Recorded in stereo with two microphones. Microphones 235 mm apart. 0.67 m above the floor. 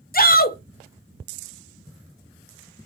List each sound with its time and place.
0.1 s a shout: 40° left (ahead or behind), 0.6 m